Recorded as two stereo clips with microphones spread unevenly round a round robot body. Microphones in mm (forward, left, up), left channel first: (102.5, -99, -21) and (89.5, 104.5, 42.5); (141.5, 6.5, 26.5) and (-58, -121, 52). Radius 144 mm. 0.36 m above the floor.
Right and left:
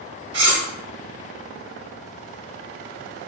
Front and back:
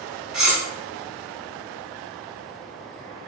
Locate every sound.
0.3 s cutlery clinking: 120° left, 0.6 m